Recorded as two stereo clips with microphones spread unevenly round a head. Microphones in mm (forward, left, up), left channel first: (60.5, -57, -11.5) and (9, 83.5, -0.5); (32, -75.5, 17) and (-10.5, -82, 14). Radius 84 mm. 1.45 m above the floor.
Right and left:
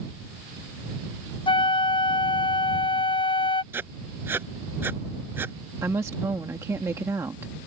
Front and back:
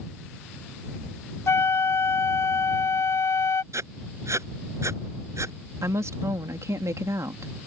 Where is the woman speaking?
175° right.